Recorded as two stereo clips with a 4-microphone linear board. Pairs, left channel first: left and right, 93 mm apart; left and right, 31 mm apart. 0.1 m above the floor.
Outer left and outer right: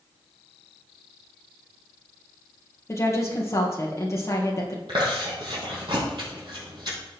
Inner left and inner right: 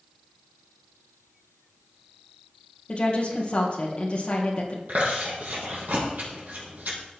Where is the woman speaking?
35° left (ahead or behind), 2.5 m.